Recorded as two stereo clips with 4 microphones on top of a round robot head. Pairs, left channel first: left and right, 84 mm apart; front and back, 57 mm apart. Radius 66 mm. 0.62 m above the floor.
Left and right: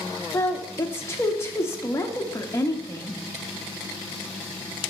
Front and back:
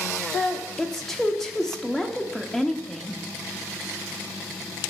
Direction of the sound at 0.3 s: 85° left.